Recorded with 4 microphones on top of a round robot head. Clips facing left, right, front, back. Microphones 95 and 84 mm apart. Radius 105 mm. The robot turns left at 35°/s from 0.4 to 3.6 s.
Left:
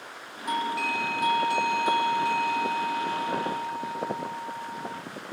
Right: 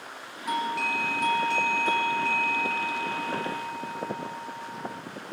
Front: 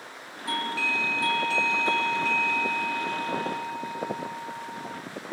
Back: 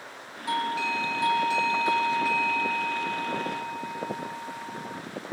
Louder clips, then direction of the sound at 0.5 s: Even, back 2 dB; 175° right.